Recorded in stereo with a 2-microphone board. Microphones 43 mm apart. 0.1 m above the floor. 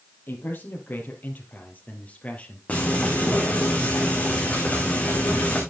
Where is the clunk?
I don't hear a clunk.